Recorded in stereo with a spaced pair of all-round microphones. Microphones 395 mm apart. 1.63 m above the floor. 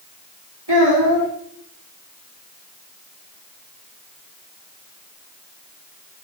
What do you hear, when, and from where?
0.7 s a child speaking: 80° right, 2.5 m